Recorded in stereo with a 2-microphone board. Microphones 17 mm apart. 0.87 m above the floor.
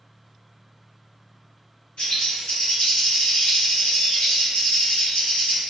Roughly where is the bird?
Left.